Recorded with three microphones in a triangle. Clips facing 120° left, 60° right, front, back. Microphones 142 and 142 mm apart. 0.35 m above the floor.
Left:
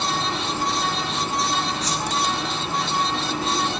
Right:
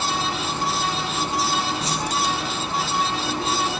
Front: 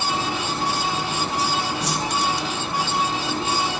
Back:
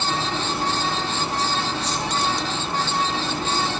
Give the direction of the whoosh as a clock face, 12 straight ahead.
12 o'clock.